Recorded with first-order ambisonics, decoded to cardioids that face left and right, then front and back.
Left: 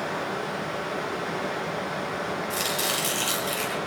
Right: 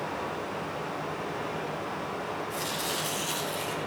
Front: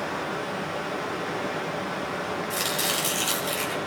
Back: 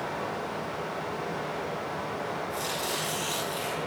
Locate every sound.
0.0 s running water: 45° left, 7 m
2.5 s chopping: 40° left, 6.5 m